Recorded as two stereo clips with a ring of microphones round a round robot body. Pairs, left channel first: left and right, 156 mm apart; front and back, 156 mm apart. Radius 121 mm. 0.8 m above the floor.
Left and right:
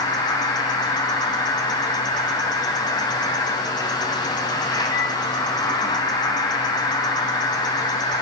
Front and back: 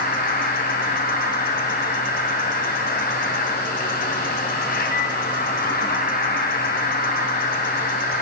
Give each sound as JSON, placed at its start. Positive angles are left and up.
{"t": 0.0, "sound": "an insect", "azimuth_deg": 25, "distance_m": 2.0}